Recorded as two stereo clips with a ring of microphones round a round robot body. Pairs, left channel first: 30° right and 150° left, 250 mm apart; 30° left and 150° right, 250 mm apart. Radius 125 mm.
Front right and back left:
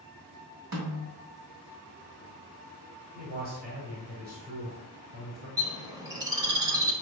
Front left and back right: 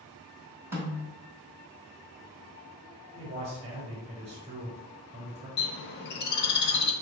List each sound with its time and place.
0.7 s a snare drum: 130° left, 1.8 m
3.1 s a man speaking: 160° left, 1.4 m
5.6 s a bird: 75° left, 0.6 m